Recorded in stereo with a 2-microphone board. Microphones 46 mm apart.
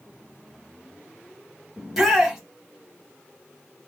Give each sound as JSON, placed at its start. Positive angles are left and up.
{"t": 1.8, "sound": "a shout", "side_deg": -10, "distance_m": 1.4}